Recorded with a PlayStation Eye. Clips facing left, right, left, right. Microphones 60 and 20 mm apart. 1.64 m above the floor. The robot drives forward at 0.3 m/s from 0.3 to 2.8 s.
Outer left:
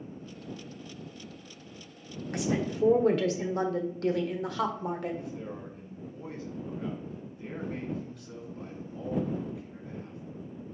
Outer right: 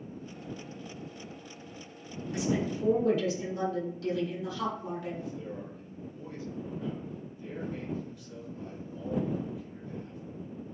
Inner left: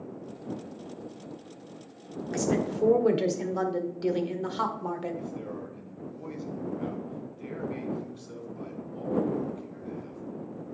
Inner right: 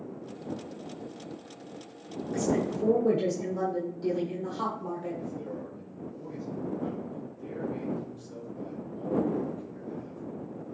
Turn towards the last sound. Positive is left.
turn(degrees=80)